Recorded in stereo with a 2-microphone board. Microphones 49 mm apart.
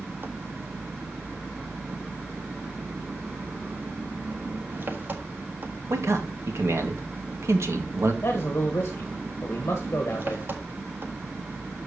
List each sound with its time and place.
0.0 s an engine running: 45° right (ahead or behind), 1.6 m
5.9 s a man speaking: 75° right (ahead or behind), 1.9 m
8.2 s a man speaking: 55° left (ahead or behind), 1.6 m